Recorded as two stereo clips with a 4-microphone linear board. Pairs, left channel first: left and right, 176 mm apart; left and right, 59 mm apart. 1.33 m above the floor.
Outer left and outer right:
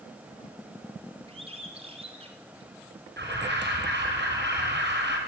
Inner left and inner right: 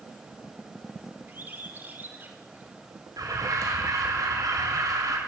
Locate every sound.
1.3 s a bird: 35° right (ahead or behind), 4.5 m
3.2 s an alarm: 85° right, 6 m